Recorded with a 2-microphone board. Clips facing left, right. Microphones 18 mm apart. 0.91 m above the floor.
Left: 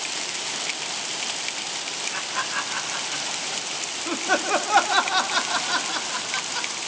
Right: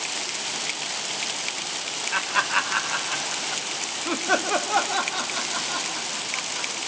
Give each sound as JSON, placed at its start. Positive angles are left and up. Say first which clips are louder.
{"t": 2.1, "sound": "laughter", "louder": "right 7 dB", "side_deg": -55, "distance_m": 2.0}